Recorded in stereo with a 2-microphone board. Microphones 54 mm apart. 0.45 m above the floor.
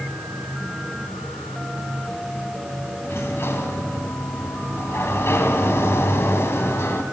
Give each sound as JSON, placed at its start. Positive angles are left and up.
{"t": 3.0, "sound": "a sliding door", "side_deg": 50, "distance_m": 3.0}